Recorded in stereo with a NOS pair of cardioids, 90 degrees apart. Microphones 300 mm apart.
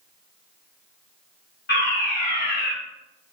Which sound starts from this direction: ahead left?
A fire alarm, at 1.7 s.